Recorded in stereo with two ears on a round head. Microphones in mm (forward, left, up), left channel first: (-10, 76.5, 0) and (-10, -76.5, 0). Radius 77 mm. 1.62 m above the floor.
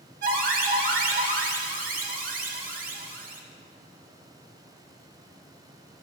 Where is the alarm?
50° right (ahead or behind), 1.0 m.